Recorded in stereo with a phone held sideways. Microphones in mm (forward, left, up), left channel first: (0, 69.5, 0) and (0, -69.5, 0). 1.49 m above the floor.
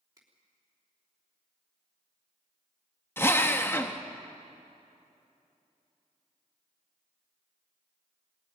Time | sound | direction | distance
0.2 | a finger snap | 25° right (ahead or behind) | 3.5 m
3.2 | a drill | 15° left (ahead or behind) | 1.0 m